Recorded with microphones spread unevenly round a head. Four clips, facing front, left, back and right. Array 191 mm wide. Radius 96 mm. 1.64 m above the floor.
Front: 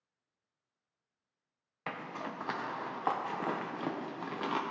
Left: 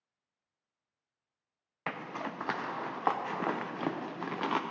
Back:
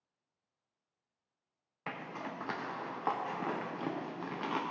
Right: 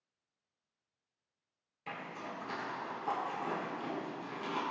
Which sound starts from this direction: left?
A zipper, at 1.9 s.